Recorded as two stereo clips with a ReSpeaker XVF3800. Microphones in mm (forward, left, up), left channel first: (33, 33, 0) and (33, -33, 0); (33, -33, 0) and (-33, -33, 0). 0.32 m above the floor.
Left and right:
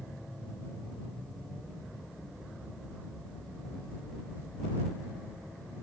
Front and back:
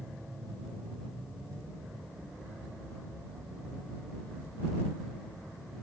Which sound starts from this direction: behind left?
An aircraft, at 0.0 s.